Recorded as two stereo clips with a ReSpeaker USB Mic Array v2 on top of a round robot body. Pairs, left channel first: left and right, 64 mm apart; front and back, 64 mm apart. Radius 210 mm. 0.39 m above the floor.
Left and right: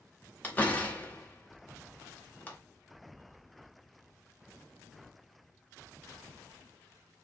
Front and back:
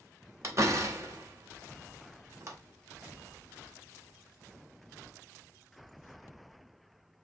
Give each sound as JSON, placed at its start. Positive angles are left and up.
{"t": 0.4, "sound": "a door slam", "azimuth_deg": 150, "distance_m": 1.6}